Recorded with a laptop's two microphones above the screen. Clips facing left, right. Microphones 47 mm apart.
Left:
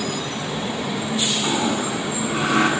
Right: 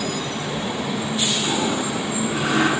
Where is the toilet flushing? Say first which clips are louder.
Left 1 dB; 40° left (ahead or behind), 9.5 m.